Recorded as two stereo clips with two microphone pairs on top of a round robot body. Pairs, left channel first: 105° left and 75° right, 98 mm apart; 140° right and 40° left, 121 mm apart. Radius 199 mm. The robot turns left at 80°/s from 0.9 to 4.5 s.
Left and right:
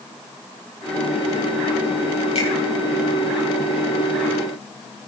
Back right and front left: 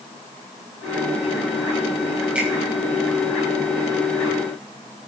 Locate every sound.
2.4 s a finger snap: 120° left, 7 m; by 2.5 s 110° left, 7 m